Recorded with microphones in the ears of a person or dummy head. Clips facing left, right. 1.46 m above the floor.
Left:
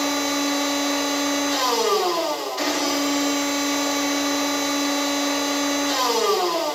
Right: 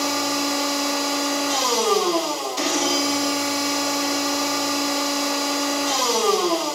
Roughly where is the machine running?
Right.